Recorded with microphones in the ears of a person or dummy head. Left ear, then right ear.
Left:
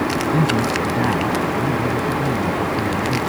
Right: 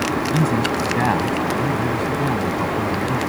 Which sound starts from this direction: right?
A man speaking, at 0.3 s.